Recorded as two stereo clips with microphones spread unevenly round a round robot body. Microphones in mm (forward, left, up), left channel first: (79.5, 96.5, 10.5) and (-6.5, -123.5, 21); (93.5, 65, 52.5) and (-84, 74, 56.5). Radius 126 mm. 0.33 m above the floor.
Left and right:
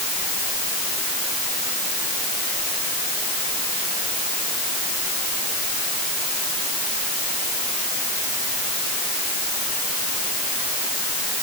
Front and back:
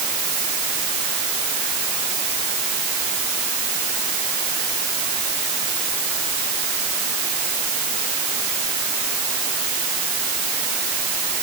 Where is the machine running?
I don't hear a machine running.